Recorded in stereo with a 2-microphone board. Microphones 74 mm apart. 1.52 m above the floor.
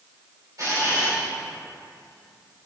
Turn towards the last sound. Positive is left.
turn(degrees=-60)  # may be behind; listen again after turning